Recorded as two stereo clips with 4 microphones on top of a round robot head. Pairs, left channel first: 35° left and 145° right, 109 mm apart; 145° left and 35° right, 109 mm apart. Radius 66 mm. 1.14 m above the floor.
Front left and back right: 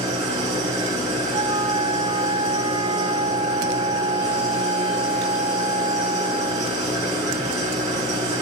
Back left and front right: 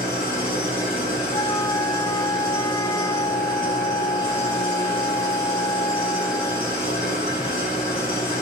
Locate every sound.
0.0 s an engine running: 165° right, 5.5 m
1.3 s a flute: 170° right, 0.6 m